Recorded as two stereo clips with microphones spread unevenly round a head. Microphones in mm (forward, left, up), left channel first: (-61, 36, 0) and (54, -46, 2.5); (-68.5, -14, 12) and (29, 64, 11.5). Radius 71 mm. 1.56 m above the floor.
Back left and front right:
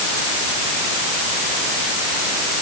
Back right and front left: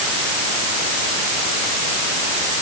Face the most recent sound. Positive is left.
No sound to turn to.